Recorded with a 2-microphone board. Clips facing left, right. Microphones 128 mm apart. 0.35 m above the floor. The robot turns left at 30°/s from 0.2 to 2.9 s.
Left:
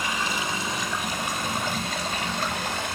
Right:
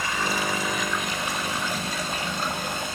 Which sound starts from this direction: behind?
Running water, at 0.0 s.